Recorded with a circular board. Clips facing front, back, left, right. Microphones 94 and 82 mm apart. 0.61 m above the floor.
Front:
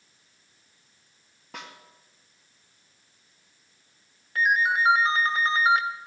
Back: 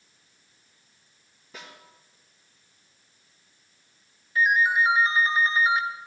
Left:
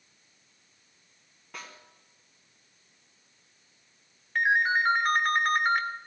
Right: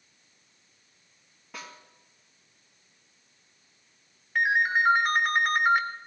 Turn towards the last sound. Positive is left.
turn(degrees=-5)